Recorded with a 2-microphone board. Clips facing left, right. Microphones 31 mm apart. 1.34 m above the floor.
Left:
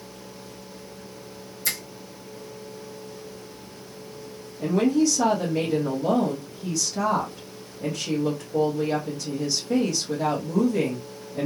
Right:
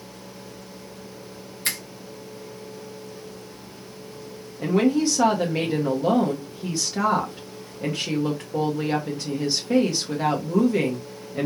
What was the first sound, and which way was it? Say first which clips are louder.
A finger snap: right 1 dB; 50° right (ahead or behind).